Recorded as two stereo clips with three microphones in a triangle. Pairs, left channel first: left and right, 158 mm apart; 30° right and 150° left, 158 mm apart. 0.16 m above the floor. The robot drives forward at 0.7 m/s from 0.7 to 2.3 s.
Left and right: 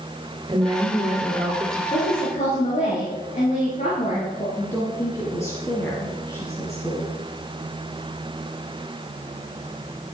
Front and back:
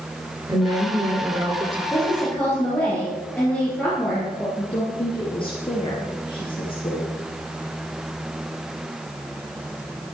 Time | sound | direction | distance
0.5 | a woman speaking | 145° right | 2.0 m
1.9 | a woman speaking | 45° left | 4 m
4.6 | a woman speaking | 20° left | 2.5 m